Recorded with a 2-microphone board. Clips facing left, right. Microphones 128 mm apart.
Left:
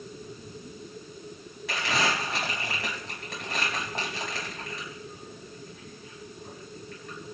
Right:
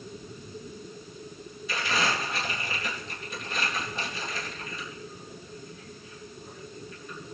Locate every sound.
1.7 s crumpling: 80° left, 5 m